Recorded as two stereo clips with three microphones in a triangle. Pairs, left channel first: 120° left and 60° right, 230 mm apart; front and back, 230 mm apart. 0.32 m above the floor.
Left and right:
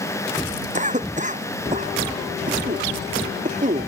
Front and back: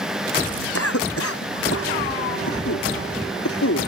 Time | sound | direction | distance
0.7 | a cough | straight ahead | ?